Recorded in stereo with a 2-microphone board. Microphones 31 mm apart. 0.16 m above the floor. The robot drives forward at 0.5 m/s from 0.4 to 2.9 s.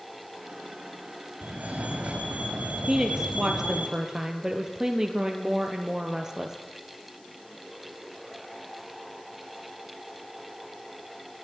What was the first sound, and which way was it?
A fire alarm, 60° right (ahead or behind).